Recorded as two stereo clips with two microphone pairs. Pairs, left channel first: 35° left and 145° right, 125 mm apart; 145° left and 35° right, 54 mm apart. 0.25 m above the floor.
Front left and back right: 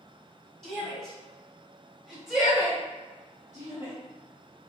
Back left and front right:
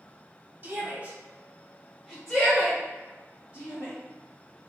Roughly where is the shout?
Ahead right.